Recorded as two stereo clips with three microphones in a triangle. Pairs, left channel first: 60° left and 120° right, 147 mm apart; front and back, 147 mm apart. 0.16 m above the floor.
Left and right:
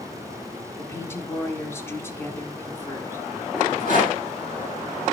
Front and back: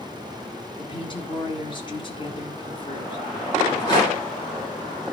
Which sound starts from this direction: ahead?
A woman speaking, at 0.8 s.